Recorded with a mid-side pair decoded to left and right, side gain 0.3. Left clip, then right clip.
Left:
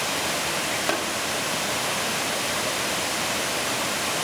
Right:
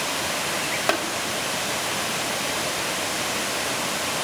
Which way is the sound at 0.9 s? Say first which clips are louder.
Right 4 dB; 45° right.